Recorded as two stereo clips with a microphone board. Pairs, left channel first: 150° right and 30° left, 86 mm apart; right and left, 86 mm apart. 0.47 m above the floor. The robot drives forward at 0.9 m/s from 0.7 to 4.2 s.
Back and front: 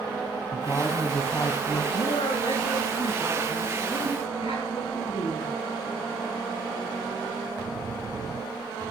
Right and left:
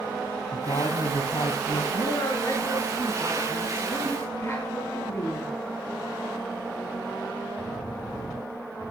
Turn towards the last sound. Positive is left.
turn(degrees=-150)